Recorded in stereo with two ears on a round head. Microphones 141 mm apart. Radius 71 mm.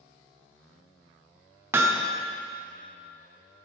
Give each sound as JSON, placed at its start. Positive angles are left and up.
{"t": 1.7, "sound": "hammering", "side_deg": -15, "distance_m": 0.7}